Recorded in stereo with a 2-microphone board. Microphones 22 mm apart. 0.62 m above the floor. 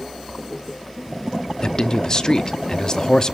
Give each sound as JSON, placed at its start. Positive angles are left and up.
{"t": 1.6, "sound": "a man speaking", "side_deg": 35, "distance_m": 0.7}